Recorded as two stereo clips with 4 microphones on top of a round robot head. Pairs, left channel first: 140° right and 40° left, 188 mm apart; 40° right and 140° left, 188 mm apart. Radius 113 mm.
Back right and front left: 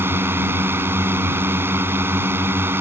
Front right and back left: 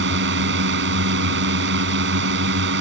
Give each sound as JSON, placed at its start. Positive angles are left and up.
{"t": 0.0, "sound": "a drone", "azimuth_deg": 115}